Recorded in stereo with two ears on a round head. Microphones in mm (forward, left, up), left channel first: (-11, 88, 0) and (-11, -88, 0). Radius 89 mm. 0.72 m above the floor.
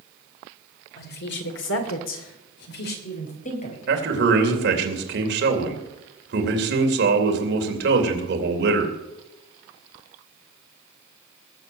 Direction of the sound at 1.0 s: 55° left (ahead or behind).